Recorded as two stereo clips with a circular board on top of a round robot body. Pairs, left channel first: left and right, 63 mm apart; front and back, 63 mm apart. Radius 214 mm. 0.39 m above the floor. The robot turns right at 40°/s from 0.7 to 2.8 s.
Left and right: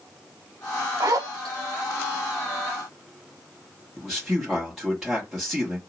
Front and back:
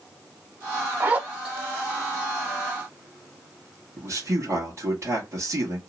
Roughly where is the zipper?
Behind right.